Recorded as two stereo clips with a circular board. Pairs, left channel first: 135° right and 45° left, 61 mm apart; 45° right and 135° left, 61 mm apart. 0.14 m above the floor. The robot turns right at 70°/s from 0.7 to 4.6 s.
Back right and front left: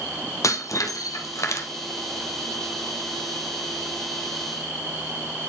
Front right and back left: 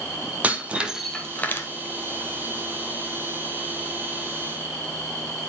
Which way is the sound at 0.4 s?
160° right.